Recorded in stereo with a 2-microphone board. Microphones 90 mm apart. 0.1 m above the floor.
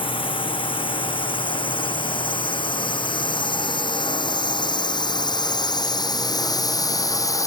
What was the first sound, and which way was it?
A drone, 70° left (ahead or behind).